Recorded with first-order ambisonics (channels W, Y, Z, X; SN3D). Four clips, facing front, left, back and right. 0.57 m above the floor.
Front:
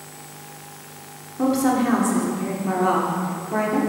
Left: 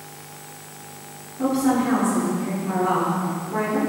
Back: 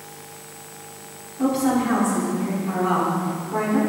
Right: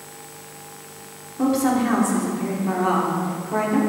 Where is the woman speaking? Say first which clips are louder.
Right 1 dB, front 1 dB; 40° right, 1.6 m.